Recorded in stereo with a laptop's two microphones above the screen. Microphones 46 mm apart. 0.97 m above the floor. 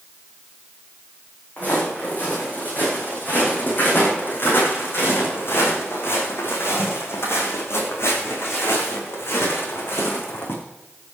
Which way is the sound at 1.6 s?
35° left (ahead or behind).